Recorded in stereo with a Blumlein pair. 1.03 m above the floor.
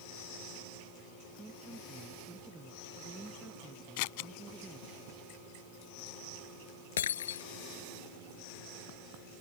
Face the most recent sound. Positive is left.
turn(degrees=65)